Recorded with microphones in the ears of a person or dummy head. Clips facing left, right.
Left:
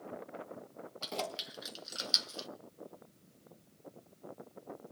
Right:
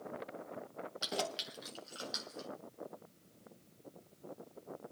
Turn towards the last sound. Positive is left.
turn(degrees=55)  # may be behind; listen again after turning